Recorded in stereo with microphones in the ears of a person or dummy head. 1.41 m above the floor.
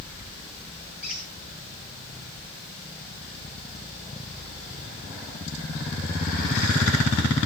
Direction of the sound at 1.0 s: 10° right (ahead or behind).